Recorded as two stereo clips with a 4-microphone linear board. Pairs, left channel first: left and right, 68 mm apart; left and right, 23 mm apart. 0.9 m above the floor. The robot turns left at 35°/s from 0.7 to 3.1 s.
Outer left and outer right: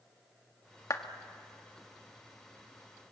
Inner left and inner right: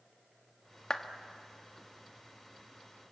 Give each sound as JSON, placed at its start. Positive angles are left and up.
{"t": 0.9, "sound": "a clap", "side_deg": 50, "distance_m": 1.5}